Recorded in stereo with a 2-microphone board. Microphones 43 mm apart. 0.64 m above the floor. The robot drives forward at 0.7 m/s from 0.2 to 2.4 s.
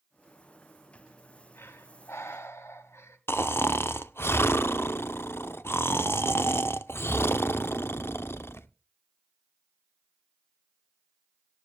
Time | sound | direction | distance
0.9 | breathing | 60° left (ahead or behind) | 1.7 m
3.3 | snoring | 65° left (ahead or behind) | 0.7 m